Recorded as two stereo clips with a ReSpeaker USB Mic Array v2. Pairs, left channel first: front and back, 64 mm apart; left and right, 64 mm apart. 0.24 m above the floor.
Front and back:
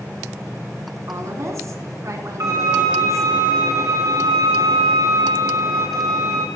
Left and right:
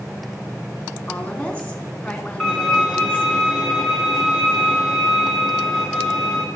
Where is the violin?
Straight behind, 3.5 m.